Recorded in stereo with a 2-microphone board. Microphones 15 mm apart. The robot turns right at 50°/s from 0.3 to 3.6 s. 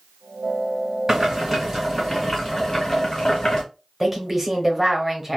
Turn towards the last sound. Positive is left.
turn(degrees=-10)  # may be behind; listen again after turning